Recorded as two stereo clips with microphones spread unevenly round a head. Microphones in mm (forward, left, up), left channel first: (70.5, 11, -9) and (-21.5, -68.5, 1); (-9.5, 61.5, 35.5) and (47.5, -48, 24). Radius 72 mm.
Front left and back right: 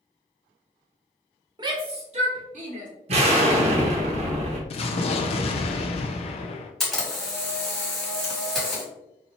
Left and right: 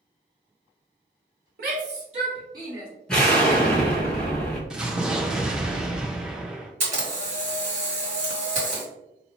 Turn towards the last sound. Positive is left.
turn(degrees=-50)